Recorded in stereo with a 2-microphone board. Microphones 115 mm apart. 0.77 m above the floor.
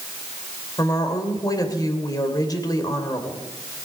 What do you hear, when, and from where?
0.8 s a woman speaking: 35° left (ahead or behind), 2.5 m